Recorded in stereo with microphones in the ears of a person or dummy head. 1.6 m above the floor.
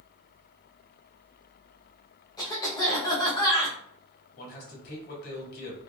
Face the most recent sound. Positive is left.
turn(degrees=55)  # may be behind; listen again after turning